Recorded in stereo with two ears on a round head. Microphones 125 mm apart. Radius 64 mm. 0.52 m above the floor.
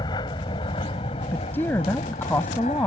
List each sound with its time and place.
0.0 s an aircraft: 30° left (ahead or behind); by 2.9 s 50° left (ahead or behind)
1.3 s a woman speaking: 15° left (ahead or behind)